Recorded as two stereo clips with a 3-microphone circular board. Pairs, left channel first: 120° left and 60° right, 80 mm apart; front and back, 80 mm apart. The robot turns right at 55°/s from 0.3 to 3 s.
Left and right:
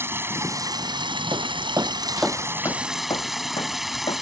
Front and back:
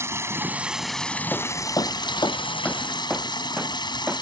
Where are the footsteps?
70° right; by 4.2 s 110° left.